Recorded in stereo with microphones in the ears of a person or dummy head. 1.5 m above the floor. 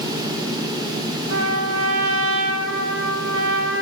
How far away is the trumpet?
About 0.7 m.